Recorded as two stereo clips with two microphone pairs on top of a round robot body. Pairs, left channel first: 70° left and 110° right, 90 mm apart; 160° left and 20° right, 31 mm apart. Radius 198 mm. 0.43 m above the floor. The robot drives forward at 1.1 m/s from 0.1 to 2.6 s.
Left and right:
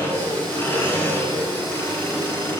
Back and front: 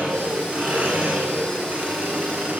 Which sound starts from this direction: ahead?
An engine running, at 0.0 s.